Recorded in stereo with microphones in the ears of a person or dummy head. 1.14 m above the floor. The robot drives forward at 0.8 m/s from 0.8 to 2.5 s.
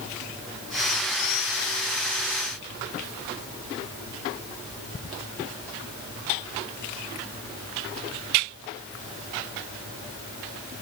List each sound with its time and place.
Only background noise.